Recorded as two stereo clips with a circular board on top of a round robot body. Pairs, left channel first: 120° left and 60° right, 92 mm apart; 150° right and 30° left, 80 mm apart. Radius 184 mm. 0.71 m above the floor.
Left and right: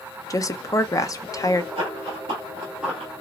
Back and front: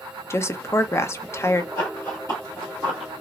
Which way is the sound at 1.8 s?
100° right.